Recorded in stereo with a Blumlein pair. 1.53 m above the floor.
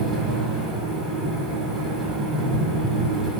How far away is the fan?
About 1.3 m.